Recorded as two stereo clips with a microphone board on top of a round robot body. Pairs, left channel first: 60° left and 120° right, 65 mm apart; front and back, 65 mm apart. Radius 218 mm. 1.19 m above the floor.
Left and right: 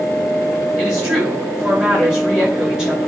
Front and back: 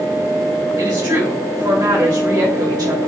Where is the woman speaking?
160° left, 5 m.